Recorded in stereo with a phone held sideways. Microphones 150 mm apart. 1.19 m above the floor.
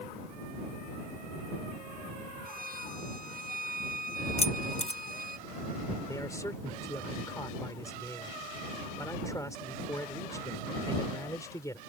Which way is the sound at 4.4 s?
40° left (ahead or behind).